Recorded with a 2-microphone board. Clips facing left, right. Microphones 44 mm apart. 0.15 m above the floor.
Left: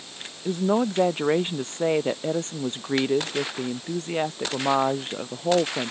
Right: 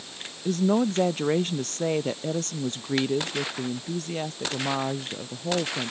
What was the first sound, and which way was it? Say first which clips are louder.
A woman speaking: even; 15° left (ahead or behind).